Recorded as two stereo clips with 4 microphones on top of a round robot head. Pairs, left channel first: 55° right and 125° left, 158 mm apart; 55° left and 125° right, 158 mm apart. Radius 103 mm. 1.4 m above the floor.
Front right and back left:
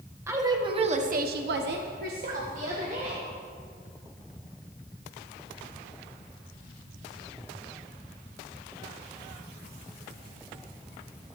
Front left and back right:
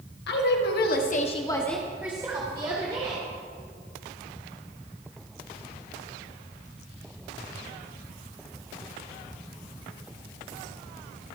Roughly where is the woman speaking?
Ahead left.